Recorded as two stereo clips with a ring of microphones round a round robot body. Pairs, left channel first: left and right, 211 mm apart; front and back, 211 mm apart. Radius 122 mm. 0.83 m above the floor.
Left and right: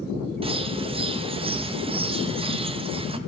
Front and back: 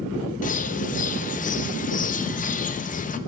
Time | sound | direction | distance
0.4 | a bird | 35° right | 0.8 m